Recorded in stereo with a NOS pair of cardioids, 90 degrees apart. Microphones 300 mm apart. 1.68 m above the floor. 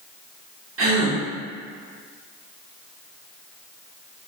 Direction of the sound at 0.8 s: 45° right.